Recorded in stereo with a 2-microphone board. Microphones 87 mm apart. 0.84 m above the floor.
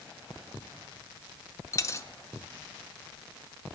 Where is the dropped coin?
30° left (ahead or behind), 0.6 m.